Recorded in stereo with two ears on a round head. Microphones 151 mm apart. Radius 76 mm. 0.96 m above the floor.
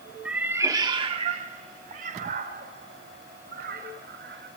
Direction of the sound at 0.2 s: 5° right (ahead or behind).